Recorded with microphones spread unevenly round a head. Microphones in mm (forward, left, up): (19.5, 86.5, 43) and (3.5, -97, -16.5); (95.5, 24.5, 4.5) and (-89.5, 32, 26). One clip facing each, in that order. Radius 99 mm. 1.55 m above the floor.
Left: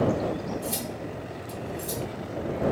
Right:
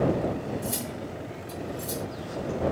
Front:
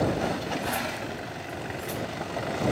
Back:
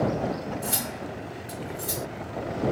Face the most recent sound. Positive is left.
turn(degrees=175)